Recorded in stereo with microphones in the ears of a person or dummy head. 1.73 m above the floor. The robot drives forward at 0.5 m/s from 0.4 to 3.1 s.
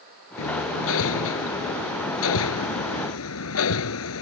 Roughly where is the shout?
No shout in this recording.